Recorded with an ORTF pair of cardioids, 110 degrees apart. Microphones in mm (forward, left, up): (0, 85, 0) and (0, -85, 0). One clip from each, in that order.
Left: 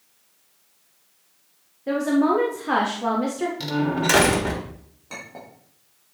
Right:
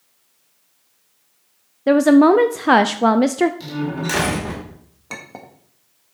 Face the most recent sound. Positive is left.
turn(degrees=-50)